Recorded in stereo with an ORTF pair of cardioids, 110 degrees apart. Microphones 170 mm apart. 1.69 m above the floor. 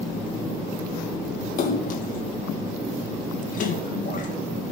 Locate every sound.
1.6 s a splash: 50° left, 1.9 m